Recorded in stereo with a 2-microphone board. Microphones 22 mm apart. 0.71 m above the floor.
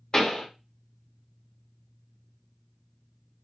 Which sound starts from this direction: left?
A pop, at 0.1 s.